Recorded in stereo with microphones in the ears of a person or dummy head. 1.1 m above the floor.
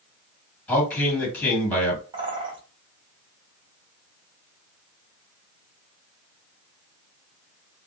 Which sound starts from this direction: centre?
A man speaking, at 0.7 s.